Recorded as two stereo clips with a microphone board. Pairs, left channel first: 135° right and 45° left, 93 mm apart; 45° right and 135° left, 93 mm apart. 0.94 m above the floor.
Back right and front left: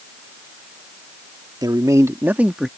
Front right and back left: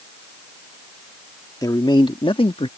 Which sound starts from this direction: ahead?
A man speaking, at 1.6 s.